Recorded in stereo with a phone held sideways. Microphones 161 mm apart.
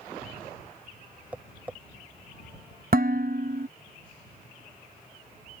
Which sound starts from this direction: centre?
Tapping, at 1.3 s.